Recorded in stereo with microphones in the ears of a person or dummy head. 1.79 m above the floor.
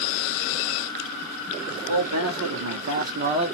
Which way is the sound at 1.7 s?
70° right (ahead or behind).